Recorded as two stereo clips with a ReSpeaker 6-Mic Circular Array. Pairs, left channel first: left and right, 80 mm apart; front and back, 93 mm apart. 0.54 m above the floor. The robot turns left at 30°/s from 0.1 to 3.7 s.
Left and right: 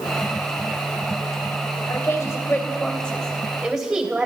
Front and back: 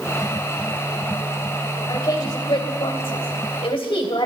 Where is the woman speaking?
45° left, 2.5 m; by 4.3 s 10° right, 2.5 m.